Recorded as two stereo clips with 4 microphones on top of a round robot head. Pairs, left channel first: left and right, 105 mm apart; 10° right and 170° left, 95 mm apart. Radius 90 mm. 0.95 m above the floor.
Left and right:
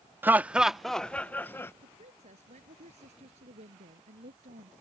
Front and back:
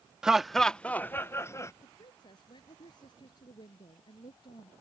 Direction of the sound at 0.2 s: 120° right.